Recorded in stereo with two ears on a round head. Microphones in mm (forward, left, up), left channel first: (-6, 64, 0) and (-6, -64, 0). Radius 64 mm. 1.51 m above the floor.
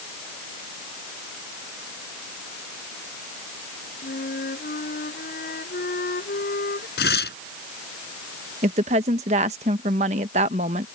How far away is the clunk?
I don't hear a clunk.